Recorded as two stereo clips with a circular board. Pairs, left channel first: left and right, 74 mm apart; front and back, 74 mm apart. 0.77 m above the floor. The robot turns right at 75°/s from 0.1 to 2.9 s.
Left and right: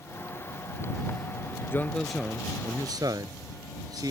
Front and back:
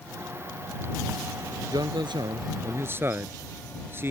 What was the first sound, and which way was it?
A man speaking, 150° left.